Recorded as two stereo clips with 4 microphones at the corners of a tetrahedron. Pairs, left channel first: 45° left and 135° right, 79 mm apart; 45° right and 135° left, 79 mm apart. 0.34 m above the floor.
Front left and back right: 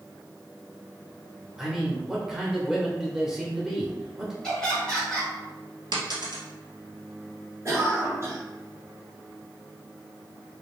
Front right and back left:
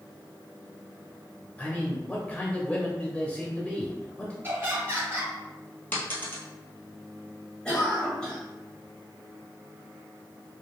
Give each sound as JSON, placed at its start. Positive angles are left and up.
{"t": 1.6, "sound": "a man speaking", "azimuth_deg": -65, "distance_m": 0.8}
{"t": 4.4, "sound": "laughter", "azimuth_deg": 120, "distance_m": 1.2}
{"t": 5.9, "sound": "a dropped coin", "azimuth_deg": -110, "distance_m": 1.2}
{"t": 7.7, "sound": "a cough", "azimuth_deg": -115, "distance_m": 1.5}